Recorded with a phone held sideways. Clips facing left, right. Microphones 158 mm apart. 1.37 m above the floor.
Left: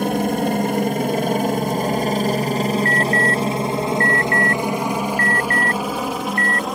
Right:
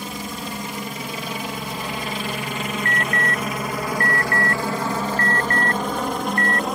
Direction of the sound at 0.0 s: 60° left (ahead or behind).